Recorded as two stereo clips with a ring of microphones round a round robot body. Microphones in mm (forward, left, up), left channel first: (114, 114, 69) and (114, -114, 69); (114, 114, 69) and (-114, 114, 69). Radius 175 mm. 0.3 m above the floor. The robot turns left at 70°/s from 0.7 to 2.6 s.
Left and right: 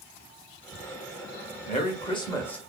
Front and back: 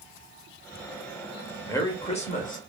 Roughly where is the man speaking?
Left.